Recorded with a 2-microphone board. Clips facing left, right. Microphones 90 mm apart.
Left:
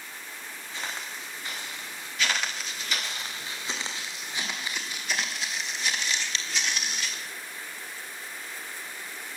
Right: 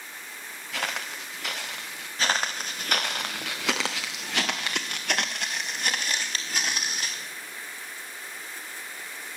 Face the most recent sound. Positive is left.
turn(degrees=-40)  # may be behind; listen again after turning